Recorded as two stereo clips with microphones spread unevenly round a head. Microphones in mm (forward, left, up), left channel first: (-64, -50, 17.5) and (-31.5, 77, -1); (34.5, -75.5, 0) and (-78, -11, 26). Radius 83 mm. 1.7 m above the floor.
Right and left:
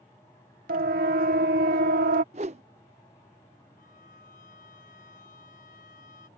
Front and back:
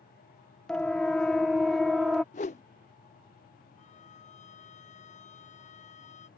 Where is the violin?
60° right.